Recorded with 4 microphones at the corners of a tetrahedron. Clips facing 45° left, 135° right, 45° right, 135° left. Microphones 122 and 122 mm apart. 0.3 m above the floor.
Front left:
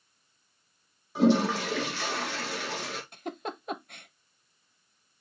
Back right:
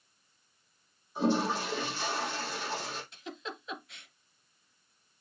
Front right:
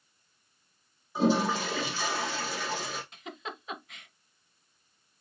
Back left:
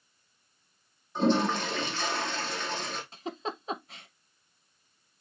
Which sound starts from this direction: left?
A giggle, at 3.1 s.